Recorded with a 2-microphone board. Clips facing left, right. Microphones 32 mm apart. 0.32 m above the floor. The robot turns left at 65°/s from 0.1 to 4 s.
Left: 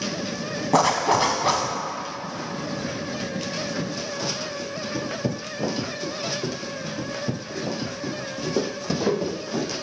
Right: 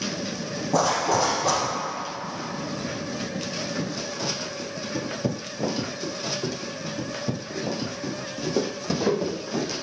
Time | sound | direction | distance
0.7 | a zipper | 90° left | 0.8 m